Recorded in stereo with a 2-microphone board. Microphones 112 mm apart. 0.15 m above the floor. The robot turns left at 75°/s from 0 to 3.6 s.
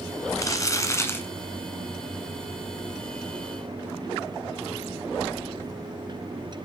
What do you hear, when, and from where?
0.3 s crumpling: 110° left, 1.4 m; by 1.3 s 35° left, 1.4 m